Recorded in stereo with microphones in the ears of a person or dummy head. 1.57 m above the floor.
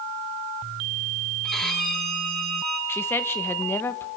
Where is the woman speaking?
10° left (ahead or behind), 1.2 m.